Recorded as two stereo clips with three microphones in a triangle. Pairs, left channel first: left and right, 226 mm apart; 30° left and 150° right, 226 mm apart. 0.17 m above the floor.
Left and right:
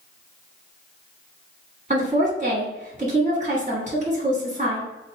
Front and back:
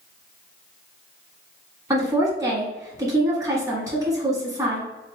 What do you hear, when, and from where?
1.9 s a woman speaking: 85° right, 1.5 m